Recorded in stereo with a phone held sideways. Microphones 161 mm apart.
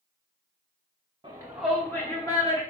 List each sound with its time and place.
1.2 s a shout: 30° right (ahead or behind), 0.8 m; by 2.6 s 30° left (ahead or behind), 1.8 m